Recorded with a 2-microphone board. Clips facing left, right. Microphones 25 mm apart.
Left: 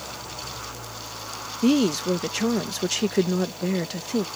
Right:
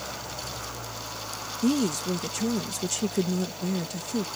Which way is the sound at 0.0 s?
20° right (ahead or behind).